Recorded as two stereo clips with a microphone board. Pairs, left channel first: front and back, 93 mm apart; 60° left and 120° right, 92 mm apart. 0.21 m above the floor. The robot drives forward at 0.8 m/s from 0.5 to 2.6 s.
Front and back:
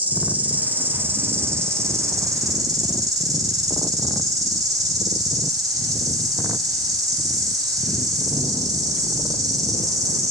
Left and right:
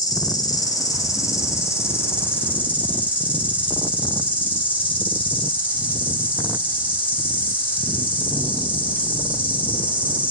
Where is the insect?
105° left, 3.5 m; by 10.3 s 130° left, 4 m.